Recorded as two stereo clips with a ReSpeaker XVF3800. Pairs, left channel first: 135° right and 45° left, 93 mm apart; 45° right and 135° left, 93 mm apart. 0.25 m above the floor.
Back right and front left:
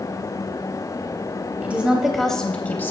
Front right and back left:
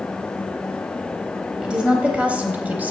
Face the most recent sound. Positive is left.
turn(degrees=-170)